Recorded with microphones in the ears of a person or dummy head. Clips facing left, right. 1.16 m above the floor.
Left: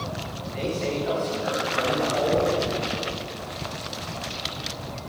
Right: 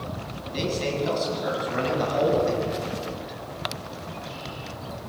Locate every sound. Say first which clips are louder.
0.5 s a man speaking: even; 55° right (ahead or behind), 9.5 m; by 2.8 s 50° right (ahead or behind), 8 m